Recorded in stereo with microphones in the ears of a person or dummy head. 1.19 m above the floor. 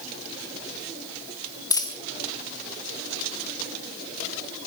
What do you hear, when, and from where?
1.7 s a dropped coin: 20° left (ahead or behind), 0.9 m